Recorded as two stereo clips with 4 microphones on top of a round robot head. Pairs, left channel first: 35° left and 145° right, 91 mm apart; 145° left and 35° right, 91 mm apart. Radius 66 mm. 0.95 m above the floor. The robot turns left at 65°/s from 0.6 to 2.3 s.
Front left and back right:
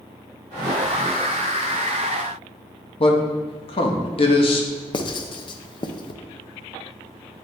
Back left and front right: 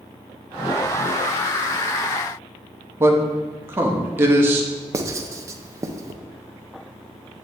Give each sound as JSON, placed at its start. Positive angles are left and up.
{"t": 3.0, "sound": "a man speaking", "azimuth_deg": 30, "distance_m": 1.2}
{"t": 4.9, "sound": "writing", "azimuth_deg": 15, "distance_m": 0.6}